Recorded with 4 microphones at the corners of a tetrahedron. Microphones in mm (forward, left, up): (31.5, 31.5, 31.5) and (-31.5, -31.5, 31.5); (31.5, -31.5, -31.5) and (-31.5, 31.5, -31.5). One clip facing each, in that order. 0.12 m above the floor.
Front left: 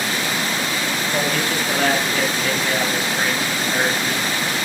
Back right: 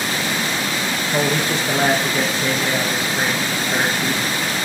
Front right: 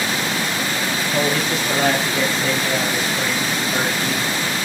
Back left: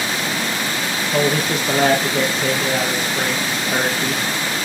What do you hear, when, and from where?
1.1 s a man speaking: 160° left, 3.5 m